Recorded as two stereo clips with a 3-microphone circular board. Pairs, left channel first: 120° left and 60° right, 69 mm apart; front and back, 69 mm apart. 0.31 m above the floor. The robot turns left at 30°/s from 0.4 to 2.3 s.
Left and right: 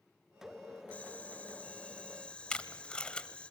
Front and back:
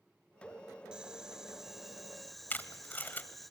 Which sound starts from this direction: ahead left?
Tape being pulled, at 2.5 s.